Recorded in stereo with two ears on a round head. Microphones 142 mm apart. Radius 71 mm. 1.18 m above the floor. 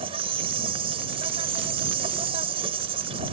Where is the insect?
35° right (ahead or behind).